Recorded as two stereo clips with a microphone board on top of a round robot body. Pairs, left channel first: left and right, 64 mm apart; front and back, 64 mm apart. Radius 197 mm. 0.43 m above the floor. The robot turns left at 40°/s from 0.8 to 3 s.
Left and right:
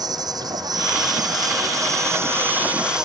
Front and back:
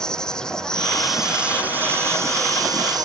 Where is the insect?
80° right; by 3.0 s 170° right.